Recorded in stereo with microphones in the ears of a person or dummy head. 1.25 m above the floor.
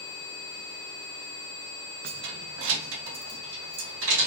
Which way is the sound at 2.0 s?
55° right (ahead or behind).